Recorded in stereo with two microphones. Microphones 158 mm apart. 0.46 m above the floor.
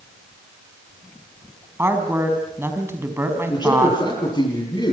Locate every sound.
1.8 s a woman speaking: 15° right (ahead or behind), 4.5 m
3.5 s a man speaking: 30° left (ahead or behind), 10 m